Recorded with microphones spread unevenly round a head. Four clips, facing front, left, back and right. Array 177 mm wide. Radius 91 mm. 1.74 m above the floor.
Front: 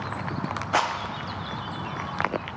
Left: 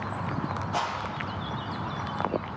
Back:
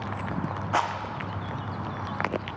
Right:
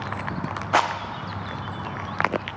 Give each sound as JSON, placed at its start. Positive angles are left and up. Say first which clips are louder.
{"t": 0.7, "sound": "a rattle", "louder": "right 10 dB, front 2 dB", "azimuth_deg": -65, "distance_m": 0.7}